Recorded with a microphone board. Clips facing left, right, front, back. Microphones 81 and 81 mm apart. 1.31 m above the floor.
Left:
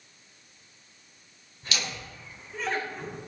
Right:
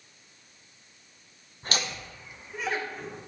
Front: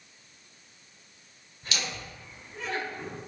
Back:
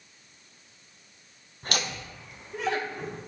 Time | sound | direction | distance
1.6 | laughter | 135° right | 0.9 m